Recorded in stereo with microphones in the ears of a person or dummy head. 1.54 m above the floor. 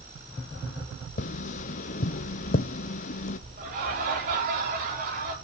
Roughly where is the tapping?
Left.